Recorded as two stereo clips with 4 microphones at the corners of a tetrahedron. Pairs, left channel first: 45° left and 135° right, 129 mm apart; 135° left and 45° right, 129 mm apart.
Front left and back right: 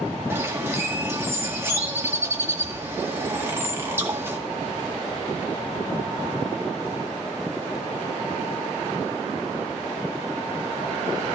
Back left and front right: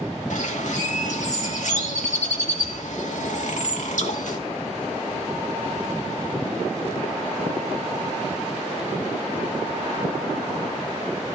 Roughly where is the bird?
Behind left.